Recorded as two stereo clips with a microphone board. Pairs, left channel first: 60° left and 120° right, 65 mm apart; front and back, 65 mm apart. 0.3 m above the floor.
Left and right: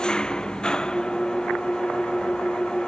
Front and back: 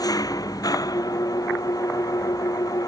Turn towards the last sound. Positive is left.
turn(degrees=-20)